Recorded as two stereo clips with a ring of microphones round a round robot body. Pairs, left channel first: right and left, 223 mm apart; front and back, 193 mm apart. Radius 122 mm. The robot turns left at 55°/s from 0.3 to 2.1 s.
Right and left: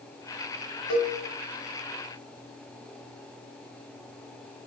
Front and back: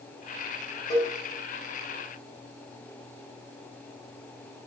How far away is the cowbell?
About 0.7 m.